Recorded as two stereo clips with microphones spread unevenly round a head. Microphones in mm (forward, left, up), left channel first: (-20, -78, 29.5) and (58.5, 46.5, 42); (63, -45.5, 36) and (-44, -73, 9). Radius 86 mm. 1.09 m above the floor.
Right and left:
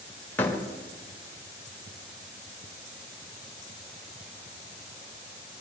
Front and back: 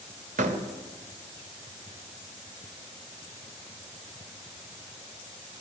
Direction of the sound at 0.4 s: 155° left.